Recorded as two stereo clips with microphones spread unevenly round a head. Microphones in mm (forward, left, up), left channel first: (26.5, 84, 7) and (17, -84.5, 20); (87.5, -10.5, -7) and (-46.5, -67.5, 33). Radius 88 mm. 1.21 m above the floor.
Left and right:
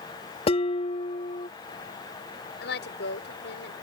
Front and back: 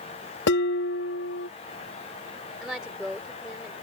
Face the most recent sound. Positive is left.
turn(degrees=120)